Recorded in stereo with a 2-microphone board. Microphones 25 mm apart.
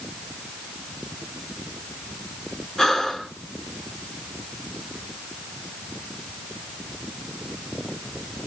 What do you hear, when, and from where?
2.8 s breathing: 20° left (ahead or behind), 1.7 m